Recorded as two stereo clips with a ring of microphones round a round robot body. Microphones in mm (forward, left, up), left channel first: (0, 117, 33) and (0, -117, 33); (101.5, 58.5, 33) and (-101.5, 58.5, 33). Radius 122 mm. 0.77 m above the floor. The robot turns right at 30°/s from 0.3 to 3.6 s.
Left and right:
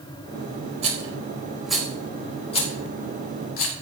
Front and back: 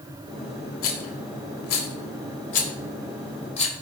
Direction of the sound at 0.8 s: 30° right.